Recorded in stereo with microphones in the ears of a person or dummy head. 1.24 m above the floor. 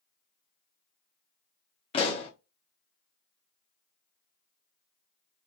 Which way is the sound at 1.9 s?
25° left (ahead or behind).